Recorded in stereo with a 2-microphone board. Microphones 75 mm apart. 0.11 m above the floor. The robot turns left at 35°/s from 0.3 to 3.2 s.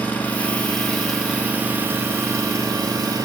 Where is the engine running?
25° left, 2.5 m; by 3.2 s 80° right, 2.5 m.